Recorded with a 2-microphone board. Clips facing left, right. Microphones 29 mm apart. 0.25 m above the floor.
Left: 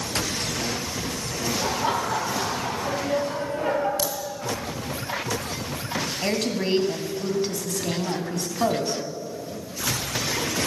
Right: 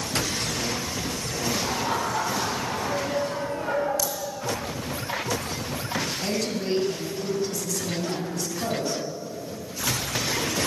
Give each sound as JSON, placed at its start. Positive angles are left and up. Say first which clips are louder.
{"t": 1.6, "sound": "laughter", "louder": "left 4 dB", "side_deg": 55, "distance_m": 7.0}
{"t": 4.0, "sound": "a crack", "louder": "left 1 dB", "side_deg": 45, "distance_m": 2.0}
{"t": 6.2, "sound": "a woman speaking", "louder": "left 2 dB", "side_deg": 50, "distance_m": 1.9}